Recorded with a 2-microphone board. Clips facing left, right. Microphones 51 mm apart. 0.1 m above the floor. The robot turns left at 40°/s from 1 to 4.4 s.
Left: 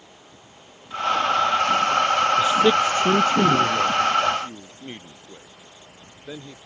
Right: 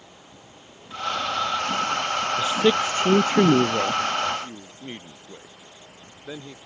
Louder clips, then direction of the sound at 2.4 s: Even; 5° left.